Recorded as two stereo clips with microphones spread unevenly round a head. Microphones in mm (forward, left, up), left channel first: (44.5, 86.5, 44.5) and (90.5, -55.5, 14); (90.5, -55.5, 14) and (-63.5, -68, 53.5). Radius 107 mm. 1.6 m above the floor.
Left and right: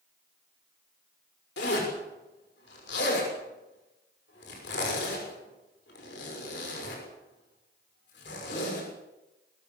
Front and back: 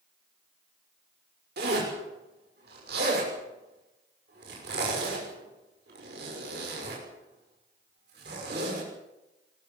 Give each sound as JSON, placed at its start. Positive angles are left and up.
{"t": 1.6, "sound": "a zipper", "azimuth_deg": 145, "distance_m": 6.0}